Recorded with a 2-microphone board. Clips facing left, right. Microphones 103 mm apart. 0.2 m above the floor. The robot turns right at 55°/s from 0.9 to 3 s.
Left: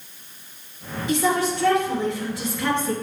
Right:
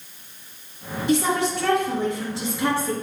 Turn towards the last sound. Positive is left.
turn(degrees=0)